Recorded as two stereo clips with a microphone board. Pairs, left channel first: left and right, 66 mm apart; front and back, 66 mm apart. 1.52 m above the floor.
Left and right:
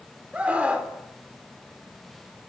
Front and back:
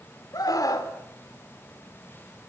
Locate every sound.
0.3 s a scream: 20° right, 4 m